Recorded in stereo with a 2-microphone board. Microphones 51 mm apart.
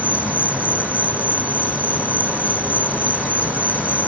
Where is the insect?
30° right (ahead or behind).